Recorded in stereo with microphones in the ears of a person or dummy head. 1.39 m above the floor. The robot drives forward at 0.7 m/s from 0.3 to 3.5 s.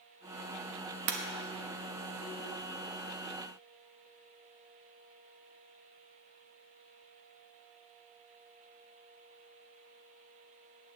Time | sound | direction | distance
1.1 | breaking glass | 55° right (ahead or behind) | 1.0 m